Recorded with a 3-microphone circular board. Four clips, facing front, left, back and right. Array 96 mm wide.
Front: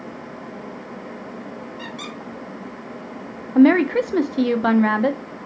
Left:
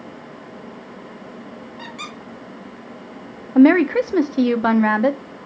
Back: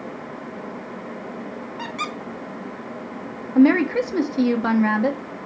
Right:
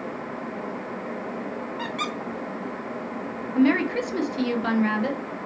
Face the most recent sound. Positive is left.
turn(degrees=70)